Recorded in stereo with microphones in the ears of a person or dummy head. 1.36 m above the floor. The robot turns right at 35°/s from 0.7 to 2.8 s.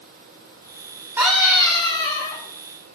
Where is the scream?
15° right, 2.0 m; by 2.4 s 30° left, 2.0 m.